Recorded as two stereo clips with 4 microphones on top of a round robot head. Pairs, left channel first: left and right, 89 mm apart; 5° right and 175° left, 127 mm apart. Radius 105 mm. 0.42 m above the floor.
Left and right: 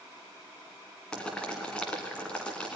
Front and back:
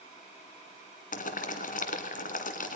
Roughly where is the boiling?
Ahead.